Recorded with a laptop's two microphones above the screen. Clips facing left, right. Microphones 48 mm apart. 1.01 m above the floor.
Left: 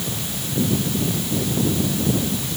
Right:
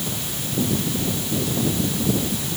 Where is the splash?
No splash in this recording.